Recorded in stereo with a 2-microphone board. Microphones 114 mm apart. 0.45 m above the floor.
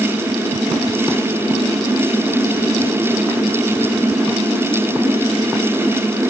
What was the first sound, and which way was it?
Only background noise.